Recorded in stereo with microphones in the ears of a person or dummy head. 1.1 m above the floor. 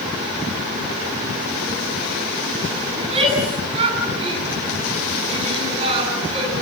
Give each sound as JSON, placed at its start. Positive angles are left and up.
{"t": 3.0, "sound": "a shout", "side_deg": -30, "distance_m": 9.5}